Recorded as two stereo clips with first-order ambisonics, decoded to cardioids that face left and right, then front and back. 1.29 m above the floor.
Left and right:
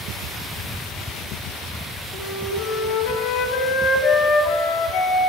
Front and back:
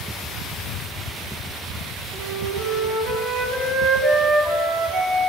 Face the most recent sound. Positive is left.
turn(degrees=120)